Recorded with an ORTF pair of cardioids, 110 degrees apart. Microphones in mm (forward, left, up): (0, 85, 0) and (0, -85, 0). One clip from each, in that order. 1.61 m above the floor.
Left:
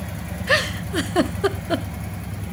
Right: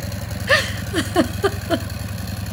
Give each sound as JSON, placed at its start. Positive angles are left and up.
{"t": 0.5, "sound": "a giggle", "azimuth_deg": -10, "distance_m": 0.7}